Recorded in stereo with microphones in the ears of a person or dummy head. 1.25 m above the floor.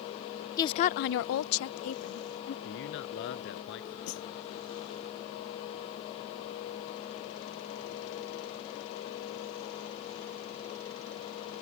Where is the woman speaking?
20° left (ahead or behind); by 2.5 s 60° left (ahead or behind).